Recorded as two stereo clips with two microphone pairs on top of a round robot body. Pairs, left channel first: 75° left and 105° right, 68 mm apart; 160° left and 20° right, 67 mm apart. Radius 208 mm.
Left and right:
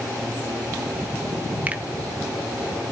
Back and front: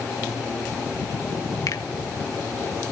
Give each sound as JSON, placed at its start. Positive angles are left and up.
{"t": 1.7, "sound": "a finger snap", "azimuth_deg": -175, "distance_m": 1.5}